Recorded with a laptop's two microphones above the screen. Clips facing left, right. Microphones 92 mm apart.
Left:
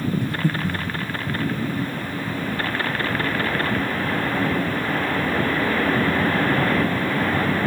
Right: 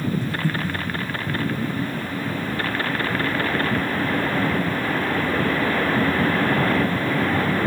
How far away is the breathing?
About 0.7 m.